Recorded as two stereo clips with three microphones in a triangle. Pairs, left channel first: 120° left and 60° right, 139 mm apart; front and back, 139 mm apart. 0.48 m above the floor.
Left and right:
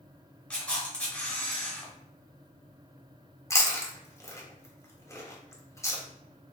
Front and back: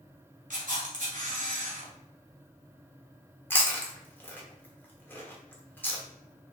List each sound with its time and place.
0.5 s a camera shutter: 160° right, 2.0 m
3.5 s chewing: 65° left, 1.1 m